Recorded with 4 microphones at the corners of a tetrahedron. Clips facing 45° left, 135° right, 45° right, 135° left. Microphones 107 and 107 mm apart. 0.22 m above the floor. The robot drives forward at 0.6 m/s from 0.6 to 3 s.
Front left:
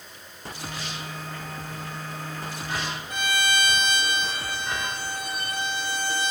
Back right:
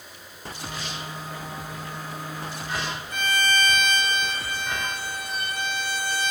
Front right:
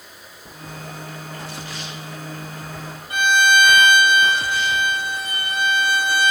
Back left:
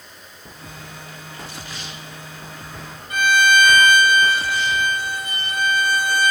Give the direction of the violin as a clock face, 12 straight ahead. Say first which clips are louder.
Back right 1 dB, even; 11 o'clock.